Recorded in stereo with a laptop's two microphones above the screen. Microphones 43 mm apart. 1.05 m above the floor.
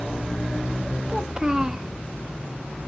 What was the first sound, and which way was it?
A child speaking, 15° right (ahead or behind).